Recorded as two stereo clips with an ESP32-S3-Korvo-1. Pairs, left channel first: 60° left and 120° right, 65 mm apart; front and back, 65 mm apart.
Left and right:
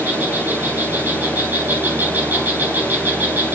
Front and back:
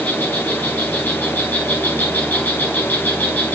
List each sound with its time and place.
0.0 s an insect: 65° right, 8 m